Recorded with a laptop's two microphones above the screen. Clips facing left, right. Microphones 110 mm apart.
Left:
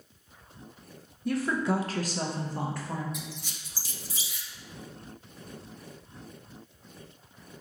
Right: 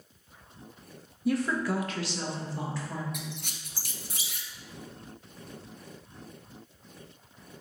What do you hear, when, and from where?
1.2 s a woman speaking: 5° right (ahead or behind), 0.5 m; by 3.0 s 50° left (ahead or behind), 1.3 m
3.1 s a squeak: 60° right (ahead or behind), 0.5 m